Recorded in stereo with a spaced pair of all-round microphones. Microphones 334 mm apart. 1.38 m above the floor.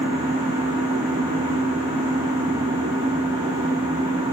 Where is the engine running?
10° right (ahead or behind), 7 m.